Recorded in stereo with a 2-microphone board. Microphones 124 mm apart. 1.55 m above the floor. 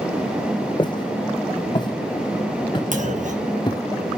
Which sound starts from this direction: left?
Footsteps, at 0.8 s.